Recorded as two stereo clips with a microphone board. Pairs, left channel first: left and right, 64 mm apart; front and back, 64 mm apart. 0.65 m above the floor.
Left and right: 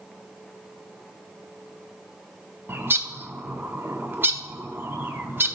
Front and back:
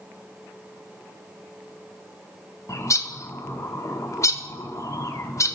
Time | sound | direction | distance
2.7 | a bird | 35° right | 0.6 m